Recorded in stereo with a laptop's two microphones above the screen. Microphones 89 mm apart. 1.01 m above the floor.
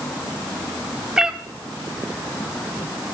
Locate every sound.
1.2 s a cat meowing: 10° right (ahead or behind), 0.7 m